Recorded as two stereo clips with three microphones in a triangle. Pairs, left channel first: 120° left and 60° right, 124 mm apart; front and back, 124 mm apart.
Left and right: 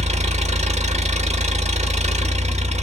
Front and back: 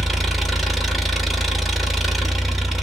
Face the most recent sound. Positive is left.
turn(degrees=-90)